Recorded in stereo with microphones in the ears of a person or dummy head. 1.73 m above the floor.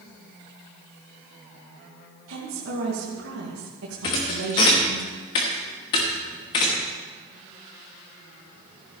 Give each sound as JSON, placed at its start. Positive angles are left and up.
{"t": 2.3, "sound": "a woman speaking", "side_deg": -90, "distance_m": 2.5}
{"t": 4.0, "sound": "a thud", "side_deg": 20, "distance_m": 1.2}